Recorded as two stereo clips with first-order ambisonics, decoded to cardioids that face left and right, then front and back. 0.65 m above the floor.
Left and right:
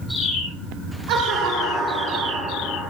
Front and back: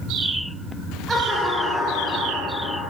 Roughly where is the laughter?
Right.